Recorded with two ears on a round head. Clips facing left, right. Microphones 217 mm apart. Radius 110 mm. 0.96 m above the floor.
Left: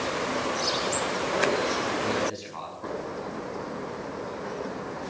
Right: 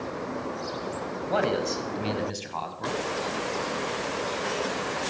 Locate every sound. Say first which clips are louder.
1.3 s a man speaking: right 2 dB; 85° right, 6 m; by 3.0 s 65° right (ahead or behind), 7 m